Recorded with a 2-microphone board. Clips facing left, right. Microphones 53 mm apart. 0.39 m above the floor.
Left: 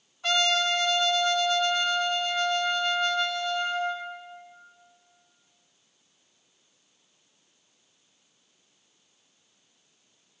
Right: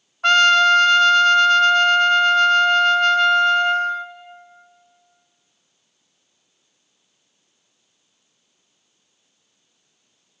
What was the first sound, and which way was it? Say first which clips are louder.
A trumpet: right 12 dB; 65° right (ahead or behind).